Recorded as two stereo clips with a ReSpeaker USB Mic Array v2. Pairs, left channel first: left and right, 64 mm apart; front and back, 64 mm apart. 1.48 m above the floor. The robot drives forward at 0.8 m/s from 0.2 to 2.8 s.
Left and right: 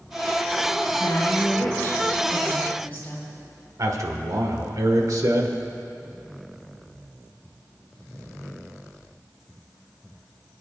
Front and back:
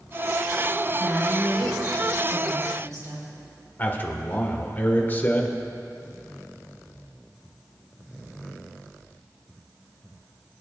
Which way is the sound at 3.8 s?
60° right.